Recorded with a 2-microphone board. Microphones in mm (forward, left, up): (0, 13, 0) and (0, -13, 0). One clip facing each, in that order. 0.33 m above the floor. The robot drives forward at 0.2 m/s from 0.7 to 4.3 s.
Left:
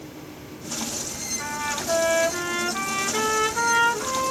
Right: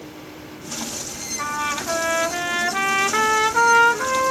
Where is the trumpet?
45° right (ahead or behind), 0.9 m; by 4.3 s 60° right (ahead or behind), 0.7 m.